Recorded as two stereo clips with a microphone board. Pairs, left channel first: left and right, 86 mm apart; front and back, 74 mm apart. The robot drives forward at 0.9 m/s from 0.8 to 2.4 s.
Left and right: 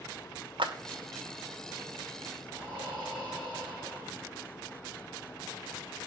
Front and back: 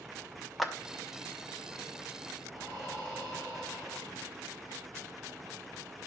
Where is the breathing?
165° left, 6.5 m.